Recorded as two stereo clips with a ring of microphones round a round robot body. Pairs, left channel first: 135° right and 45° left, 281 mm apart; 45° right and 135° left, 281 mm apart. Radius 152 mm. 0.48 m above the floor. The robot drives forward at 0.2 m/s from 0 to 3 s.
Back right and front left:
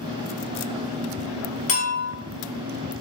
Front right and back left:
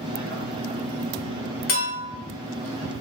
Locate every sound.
1.7 s a clink: 85° right, 0.9 m; by 2.1 s 90° right, 0.9 m